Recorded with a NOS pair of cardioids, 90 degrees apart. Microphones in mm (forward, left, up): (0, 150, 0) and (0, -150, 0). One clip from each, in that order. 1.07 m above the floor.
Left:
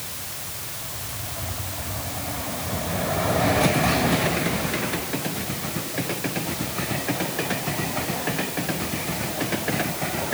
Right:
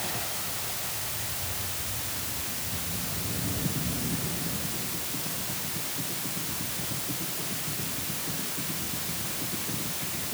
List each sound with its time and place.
Only background noise.